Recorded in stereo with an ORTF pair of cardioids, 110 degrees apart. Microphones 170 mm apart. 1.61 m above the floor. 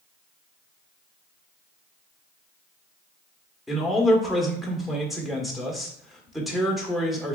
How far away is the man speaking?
About 1.2 m.